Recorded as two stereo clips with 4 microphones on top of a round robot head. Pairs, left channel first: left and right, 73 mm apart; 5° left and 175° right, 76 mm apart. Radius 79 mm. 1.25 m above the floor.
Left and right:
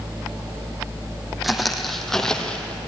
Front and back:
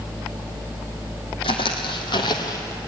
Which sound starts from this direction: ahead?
Footsteps, at 1.4 s.